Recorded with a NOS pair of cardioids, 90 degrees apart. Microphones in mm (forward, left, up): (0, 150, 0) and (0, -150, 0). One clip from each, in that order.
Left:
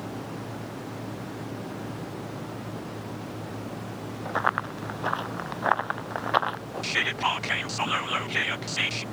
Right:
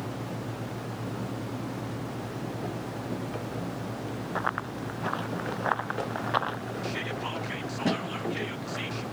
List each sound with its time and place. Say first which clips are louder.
4.3 s running footsteps: left 5 dB; 35° left; by 6.6 s 25° left
6.8 s whispering: left 10 dB; 55° left